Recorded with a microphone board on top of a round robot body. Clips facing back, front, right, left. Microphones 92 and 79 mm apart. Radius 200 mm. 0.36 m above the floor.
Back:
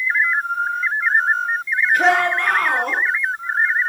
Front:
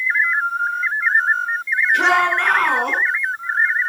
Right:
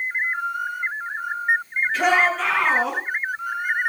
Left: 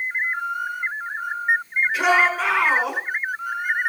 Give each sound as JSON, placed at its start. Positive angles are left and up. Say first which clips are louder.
{"t": 1.9, "sound": "a shout", "louder": "even, even", "azimuth_deg": 10, "distance_m": 9.0}